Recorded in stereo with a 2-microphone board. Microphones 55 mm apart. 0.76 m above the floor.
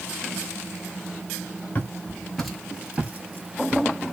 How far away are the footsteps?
About 0.9 m.